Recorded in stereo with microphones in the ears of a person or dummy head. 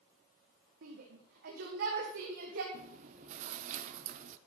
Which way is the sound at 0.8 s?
60° right (ahead or behind).